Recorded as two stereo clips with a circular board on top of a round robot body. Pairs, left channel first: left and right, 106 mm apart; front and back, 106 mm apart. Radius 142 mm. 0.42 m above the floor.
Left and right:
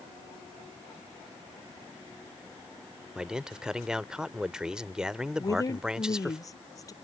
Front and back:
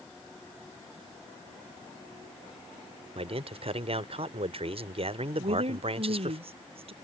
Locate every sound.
3.1 s a man speaking: 170° right
5.4 s a woman speaking: 150° left